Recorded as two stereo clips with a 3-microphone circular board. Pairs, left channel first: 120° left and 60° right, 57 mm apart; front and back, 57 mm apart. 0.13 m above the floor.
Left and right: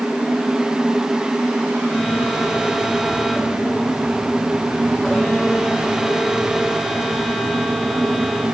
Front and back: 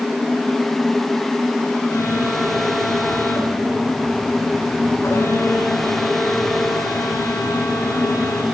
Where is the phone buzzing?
30° left, 8.5 m.